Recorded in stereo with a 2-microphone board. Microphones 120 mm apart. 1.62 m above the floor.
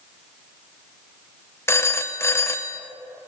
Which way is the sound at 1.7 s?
20° left (ahead or behind).